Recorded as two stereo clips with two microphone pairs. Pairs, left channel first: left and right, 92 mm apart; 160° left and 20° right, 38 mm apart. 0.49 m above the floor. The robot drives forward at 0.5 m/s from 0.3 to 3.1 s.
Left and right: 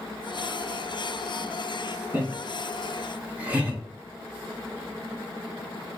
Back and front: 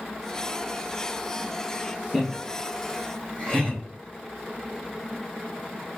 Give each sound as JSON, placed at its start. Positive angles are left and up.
{"t": 2.1, "sound": "laughter", "azimuth_deg": -115, "distance_m": 0.9}